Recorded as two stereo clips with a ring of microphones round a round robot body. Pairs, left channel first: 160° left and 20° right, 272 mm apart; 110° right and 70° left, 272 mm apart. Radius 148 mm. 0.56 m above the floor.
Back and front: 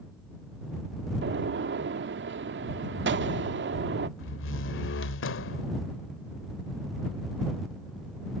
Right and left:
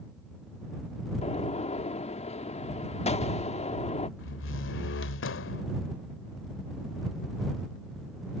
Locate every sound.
1.2 s a gunshot: 55° right
4.2 s a door slam: 160° right